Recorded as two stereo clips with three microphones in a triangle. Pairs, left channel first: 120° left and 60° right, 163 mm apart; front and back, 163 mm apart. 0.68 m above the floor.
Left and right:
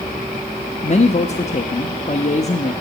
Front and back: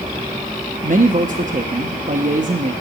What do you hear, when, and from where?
0.8 s a man speaking: 155° left, 0.8 m